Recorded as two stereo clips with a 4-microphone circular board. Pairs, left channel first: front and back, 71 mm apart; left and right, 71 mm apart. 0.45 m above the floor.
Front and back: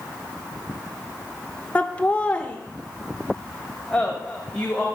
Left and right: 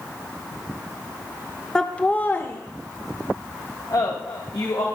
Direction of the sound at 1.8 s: 30° left.